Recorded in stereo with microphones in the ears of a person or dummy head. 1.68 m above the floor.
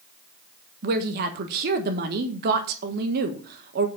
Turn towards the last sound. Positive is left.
turn(degrees=-50)  # may be behind; listen again after turning